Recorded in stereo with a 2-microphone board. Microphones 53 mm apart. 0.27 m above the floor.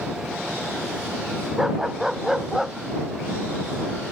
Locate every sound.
1.6 s a dog barking: 10° right (ahead or behind)